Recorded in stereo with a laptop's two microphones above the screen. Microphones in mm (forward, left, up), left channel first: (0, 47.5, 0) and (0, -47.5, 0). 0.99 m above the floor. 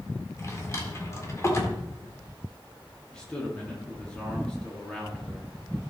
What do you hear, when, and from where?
0.4 s a drawer: 30° left (ahead or behind), 1.6 m
3.1 s a man speaking: 10° left (ahead or behind), 1.6 m